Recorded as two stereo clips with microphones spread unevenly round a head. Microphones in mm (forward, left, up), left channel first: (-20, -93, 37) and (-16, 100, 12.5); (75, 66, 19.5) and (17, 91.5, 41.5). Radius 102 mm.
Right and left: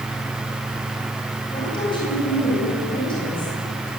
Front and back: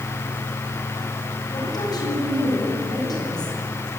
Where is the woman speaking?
25° right, 9.5 m.